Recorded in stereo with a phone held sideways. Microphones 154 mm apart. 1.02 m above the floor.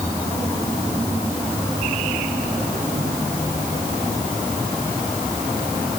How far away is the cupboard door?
I don't hear a cupboard door.